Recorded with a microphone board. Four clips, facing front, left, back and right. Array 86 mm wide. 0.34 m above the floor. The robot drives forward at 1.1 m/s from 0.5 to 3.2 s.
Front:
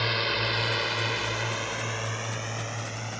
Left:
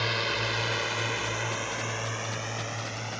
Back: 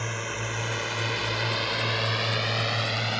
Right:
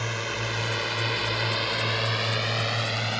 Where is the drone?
25° left; by 3.2 s 140° right.